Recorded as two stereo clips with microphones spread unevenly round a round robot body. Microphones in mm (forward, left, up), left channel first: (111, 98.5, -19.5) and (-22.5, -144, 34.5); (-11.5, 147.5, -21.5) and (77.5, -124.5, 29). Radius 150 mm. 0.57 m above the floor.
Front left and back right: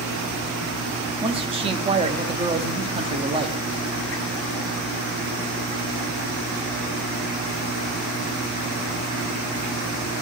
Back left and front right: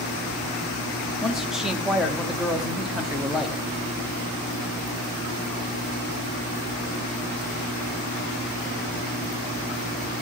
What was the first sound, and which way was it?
A man speaking, 170° left.